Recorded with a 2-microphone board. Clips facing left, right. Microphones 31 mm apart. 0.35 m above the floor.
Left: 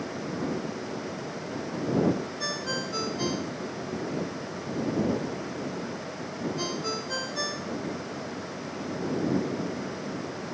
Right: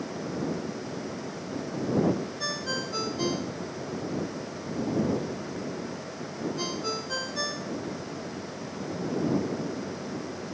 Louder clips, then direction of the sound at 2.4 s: Even; centre (ahead or behind).